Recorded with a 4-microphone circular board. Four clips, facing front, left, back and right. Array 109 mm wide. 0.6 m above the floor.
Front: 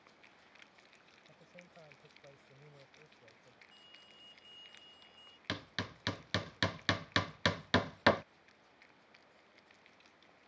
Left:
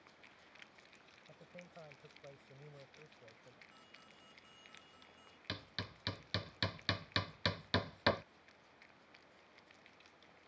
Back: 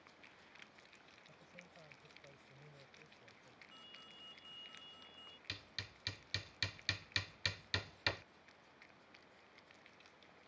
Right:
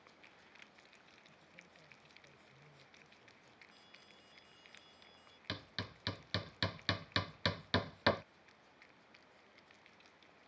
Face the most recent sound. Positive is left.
turn(degrees=0)